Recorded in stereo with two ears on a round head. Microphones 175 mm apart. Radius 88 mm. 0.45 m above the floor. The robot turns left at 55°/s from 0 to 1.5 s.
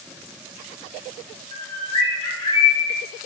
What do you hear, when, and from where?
1.5 s a bird: 25° left (ahead or behind), 0.6 m